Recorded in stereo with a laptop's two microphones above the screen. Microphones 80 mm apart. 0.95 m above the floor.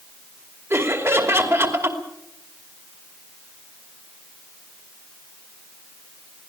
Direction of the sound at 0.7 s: 35° right (ahead or behind).